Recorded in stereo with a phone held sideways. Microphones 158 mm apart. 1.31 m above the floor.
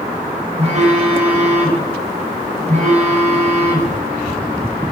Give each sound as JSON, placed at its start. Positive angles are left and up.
{"t": 0.6, "sound": "a phone buzzing", "side_deg": -45, "distance_m": 5.5}